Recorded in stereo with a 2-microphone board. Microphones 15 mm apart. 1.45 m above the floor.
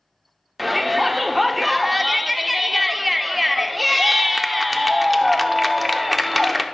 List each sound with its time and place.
0.6 s a shout: centre (ahead or behind), 0.7 m